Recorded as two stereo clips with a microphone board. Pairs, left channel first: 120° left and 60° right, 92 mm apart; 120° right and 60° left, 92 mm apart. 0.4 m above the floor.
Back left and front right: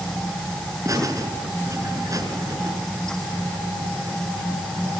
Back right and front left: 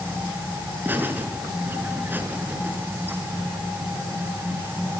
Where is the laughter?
10° right, 6 m.